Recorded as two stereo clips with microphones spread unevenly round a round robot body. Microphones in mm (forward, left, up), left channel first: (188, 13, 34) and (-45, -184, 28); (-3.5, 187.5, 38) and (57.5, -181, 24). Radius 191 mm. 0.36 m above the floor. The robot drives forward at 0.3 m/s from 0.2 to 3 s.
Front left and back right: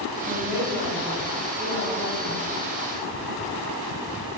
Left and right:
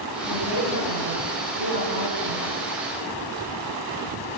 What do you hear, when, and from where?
0.2 s a woman speaking: 120° left, 3 m; by 2.5 s 130° left, 3 m